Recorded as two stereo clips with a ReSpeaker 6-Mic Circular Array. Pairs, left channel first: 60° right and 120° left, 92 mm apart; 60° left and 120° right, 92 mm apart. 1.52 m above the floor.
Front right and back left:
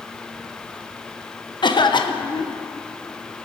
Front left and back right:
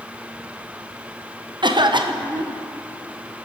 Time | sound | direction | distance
1.6 | a cough | 90° right | 0.8 m